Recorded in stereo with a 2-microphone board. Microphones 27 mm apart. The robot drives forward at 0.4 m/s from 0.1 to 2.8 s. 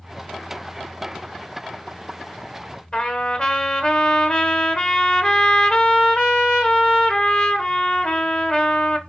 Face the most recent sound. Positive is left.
turn(degrees=40)  # may be behind; listen again after turning